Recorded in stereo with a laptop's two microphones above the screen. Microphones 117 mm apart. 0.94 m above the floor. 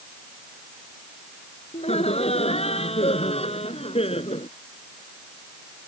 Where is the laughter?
70° left (ahead or behind); by 4.5 s 65° left (ahead or behind).